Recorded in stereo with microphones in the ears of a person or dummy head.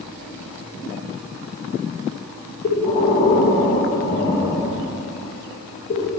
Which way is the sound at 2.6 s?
30° left (ahead or behind).